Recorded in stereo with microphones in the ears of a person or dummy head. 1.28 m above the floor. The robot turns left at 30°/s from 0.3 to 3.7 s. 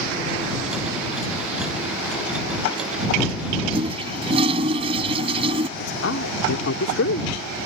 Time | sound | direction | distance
3.7 | a toilet flushing | 40° right (ahead or behind) | ?
5.8 | a man speaking | 75° left (ahead or behind) | ?